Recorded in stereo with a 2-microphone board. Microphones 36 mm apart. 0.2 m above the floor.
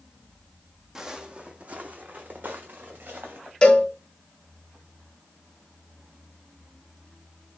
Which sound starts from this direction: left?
A cowbell, at 3.6 s.